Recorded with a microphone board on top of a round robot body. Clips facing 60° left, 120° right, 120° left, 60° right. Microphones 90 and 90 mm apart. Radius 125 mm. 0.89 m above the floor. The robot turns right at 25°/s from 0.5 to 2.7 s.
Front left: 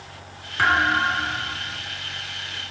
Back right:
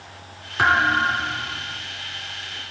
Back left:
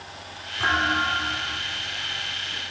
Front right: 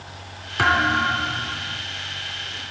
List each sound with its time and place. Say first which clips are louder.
0.6 s a thud: back right 1 dB, front right 4 dB; 50° right, 2.5 m; by 1.8 s 20° right, 2.5 m